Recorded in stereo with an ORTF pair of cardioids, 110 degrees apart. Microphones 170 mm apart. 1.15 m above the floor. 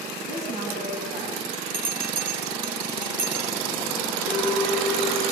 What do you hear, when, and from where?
0.3 s a woman speaking: 40° right, 8 m
1.7 s a bell: 55° right, 10 m
4.2 s a clink: 70° right, 9.5 m